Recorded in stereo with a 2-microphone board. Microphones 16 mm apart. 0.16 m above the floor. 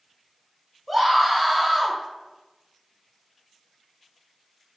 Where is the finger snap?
I don't hear a finger snap.